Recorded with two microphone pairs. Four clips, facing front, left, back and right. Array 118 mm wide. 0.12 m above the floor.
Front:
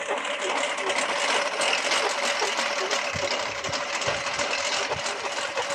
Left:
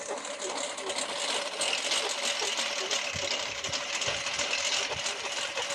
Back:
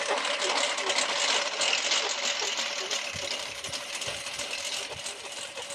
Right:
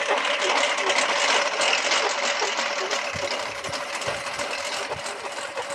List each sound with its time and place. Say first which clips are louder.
0.0 s a lawn mower: right 12 dB, front 1 dB; 90° right; by 5.8 s 30° right